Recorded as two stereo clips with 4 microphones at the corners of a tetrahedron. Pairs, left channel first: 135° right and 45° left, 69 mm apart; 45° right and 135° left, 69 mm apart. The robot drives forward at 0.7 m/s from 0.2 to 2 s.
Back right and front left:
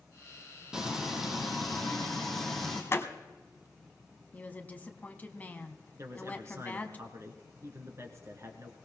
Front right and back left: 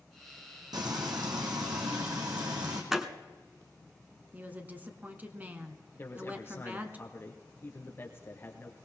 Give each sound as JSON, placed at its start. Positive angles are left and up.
{"t": 0.7, "sound": "frying", "azimuth_deg": 125, "distance_m": 2.5}
{"t": 2.9, "sound": "a door slam", "azimuth_deg": -145, "distance_m": 1.0}
{"t": 4.3, "sound": "a woman speaking", "azimuth_deg": 180, "distance_m": 1.4}
{"t": 6.0, "sound": "a man speaking", "azimuth_deg": 5, "distance_m": 2.0}